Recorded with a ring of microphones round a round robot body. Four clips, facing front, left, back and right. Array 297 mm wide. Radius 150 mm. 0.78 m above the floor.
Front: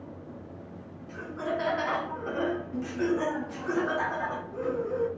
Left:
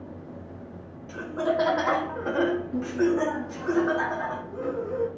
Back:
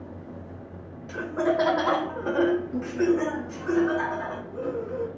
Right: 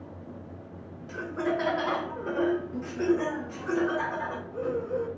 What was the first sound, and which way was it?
Laughter, 175° left.